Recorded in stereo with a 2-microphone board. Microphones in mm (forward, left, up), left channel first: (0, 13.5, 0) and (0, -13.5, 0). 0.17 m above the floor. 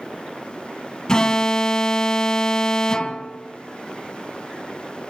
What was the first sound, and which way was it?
An alarm, 25° left (ahead or behind).